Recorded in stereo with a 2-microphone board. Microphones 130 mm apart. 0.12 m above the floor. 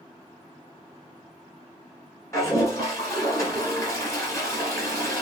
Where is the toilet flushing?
25° left (ahead or behind), 1.9 m.